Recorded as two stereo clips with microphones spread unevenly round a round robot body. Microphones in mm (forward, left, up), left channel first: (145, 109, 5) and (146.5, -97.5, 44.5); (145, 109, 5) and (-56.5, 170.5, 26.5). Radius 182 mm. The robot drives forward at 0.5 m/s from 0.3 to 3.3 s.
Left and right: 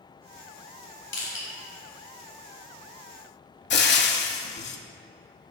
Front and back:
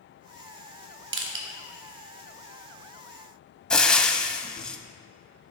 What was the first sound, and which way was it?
Crushing, 130° left.